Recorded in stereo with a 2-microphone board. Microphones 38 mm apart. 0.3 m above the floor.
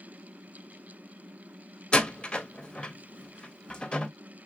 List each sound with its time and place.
1.9 s a door slam: 25° left (ahead or behind), 0.7 m